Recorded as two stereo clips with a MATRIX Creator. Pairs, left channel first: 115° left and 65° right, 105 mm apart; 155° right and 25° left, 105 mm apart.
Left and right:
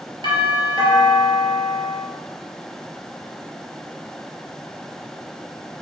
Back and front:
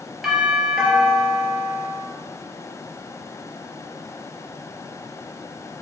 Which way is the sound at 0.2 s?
65° right.